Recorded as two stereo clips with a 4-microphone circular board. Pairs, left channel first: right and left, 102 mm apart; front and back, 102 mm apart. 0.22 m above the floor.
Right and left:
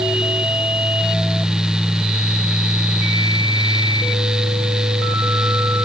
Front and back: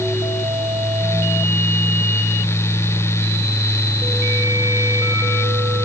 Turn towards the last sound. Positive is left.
No sound to turn to.